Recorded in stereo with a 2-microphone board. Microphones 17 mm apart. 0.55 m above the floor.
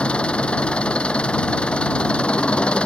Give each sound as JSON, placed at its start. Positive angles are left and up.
{"t": 0.0, "sound": "an engine running", "side_deg": 85}